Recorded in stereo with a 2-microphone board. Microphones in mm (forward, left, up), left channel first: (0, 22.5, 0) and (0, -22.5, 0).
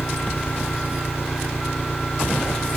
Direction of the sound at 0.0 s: 50° left (ahead or behind).